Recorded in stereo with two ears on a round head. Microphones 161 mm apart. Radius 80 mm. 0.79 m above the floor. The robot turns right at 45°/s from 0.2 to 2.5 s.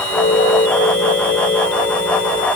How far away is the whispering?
I don't hear whispering.